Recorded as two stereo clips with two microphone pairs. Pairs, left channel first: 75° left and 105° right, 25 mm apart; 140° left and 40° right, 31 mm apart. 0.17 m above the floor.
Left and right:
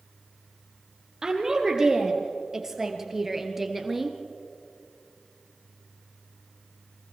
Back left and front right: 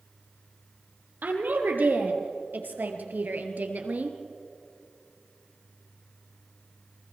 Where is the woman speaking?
35° right, 4 m; by 4.2 s 15° right, 2.5 m.